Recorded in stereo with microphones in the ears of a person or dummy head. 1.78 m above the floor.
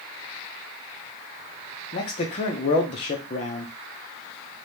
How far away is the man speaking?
About 0.6 m.